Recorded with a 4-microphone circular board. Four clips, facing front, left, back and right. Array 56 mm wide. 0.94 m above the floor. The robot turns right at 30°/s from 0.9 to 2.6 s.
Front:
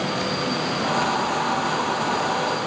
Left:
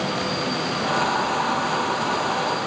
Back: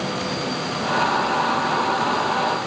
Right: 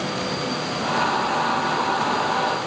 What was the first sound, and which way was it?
Only background noise.